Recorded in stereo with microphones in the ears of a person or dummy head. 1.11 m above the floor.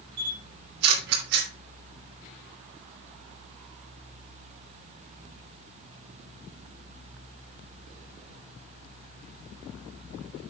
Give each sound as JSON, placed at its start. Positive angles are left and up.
{"t": 0.2, "sound": "a camera shutter", "side_deg": -65, "distance_m": 2.5}